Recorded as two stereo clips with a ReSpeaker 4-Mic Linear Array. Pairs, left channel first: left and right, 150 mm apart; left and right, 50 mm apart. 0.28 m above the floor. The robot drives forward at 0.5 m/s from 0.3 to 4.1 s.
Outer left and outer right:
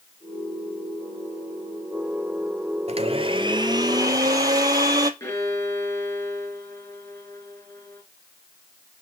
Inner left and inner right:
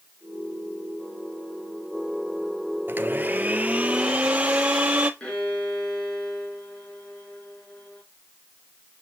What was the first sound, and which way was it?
A blender, 45° right (ahead or behind).